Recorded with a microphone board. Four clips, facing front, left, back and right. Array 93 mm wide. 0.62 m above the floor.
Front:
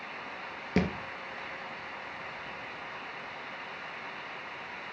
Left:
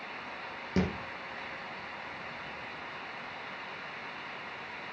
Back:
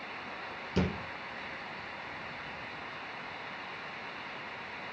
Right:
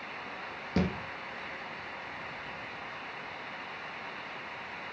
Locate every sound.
0.8 s a thud: 10° left, 3 m